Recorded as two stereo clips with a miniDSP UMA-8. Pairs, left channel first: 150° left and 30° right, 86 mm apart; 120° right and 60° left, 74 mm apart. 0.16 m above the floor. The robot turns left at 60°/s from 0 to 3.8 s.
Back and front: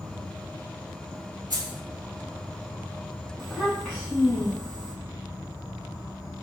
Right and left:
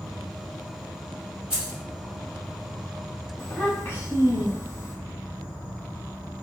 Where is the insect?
45° right, 1.7 m; by 6.4 s 90° left, 1.7 m.